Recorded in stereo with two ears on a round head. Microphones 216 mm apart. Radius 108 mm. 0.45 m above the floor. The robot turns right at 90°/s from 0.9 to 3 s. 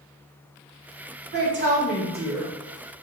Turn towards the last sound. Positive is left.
turn(degrees=40)